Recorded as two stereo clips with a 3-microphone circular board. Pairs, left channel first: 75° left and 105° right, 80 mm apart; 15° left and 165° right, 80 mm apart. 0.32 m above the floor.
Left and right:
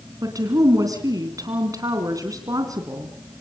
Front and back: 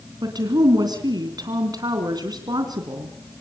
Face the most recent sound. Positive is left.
turn(degrees=-140)